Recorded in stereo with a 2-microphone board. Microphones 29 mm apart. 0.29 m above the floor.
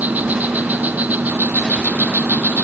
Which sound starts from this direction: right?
An insect, at 0.0 s.